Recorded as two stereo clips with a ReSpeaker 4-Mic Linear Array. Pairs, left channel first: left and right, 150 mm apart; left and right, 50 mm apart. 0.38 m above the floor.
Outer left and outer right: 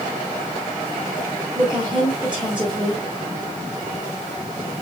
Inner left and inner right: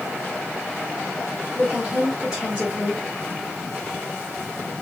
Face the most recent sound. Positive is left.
turn(degrees=-10)  # may be behind; listen again after turning